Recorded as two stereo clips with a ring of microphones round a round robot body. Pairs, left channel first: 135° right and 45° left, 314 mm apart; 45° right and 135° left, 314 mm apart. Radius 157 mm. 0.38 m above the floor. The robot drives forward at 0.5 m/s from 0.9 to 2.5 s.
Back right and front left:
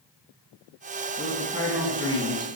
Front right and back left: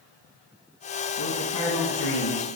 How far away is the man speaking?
About 3.5 m.